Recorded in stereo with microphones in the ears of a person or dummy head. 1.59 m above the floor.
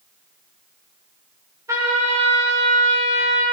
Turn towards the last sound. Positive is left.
turn(degrees=-10)  # may be behind; listen again after turning